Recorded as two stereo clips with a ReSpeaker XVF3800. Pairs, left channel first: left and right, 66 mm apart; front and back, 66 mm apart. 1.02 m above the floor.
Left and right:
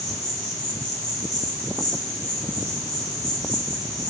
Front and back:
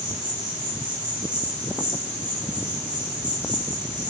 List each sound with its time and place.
0.0 s an insect: 110° left, 6.5 m